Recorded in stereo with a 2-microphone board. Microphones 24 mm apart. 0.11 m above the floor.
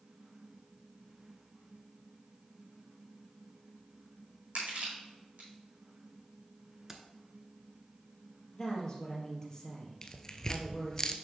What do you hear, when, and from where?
4.5 s crushing: 65° right (ahead or behind), 3.5 m
6.9 s keys jangling: 15° right (ahead or behind), 0.9 m
8.5 s a woman speaking: 20° left (ahead or behind), 2.5 m
10.0 s tearing paper: 25° left (ahead or behind), 0.6 m